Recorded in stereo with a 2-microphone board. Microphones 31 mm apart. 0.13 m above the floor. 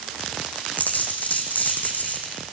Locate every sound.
0.8 s a dropped coin: 65° left (ahead or behind), 2 m